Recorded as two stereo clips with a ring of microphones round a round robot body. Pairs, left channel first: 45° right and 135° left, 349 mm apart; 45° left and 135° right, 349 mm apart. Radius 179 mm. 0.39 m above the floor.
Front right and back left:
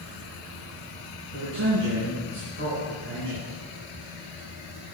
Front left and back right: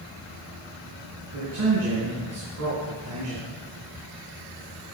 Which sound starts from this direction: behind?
A man speaking, at 1.3 s.